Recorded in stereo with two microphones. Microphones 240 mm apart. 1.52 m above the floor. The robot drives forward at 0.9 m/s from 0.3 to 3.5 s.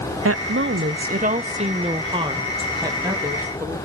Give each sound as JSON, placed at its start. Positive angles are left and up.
{"t": 0.2, "sound": "a woman speaking", "side_deg": -70, "distance_m": 0.8}